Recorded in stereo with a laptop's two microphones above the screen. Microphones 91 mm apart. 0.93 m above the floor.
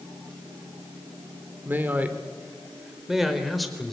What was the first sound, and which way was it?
A man speaking, 20° right (ahead or behind).